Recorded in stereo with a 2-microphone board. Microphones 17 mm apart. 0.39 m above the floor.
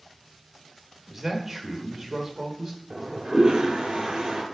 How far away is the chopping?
I don't hear chopping.